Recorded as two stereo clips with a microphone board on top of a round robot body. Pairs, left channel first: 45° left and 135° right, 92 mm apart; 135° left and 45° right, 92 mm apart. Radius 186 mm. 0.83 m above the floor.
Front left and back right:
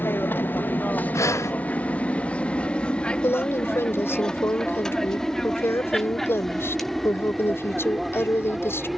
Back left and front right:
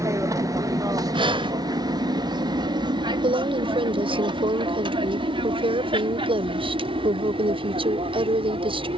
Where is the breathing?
15° right.